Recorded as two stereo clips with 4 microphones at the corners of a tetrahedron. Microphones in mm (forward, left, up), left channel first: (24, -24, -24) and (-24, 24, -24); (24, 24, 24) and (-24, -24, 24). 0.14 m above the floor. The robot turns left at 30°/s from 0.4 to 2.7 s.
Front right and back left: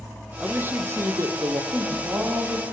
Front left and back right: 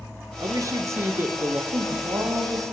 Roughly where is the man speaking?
Behind.